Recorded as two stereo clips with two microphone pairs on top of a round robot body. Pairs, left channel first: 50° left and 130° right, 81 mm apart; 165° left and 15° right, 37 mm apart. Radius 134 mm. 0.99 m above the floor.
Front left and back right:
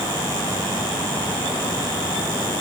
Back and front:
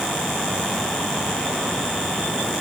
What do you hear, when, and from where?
Only background noise.